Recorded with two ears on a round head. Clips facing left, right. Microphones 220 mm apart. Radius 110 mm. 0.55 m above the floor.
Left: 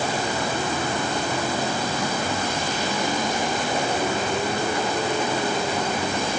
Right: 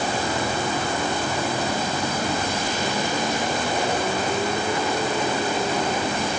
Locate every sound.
Only background noise.